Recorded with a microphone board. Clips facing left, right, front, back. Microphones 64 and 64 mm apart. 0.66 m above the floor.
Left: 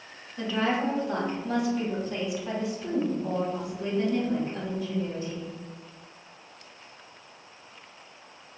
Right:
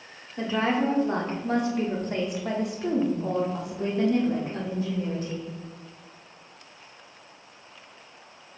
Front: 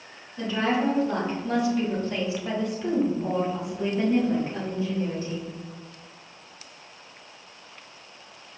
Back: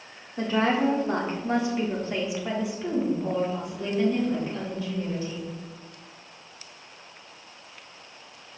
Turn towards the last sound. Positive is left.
turn(degrees=-55)